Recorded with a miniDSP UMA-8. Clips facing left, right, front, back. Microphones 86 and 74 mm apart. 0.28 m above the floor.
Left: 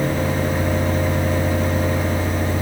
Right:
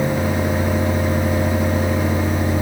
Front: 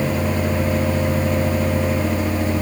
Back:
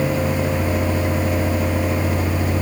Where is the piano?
No piano in this recording.